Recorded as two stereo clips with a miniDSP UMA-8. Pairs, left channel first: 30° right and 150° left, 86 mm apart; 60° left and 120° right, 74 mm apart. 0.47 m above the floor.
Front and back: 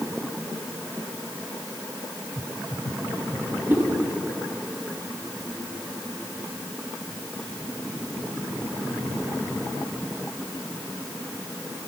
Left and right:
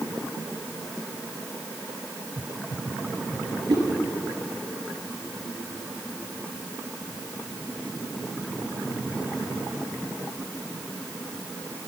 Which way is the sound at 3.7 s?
145° right.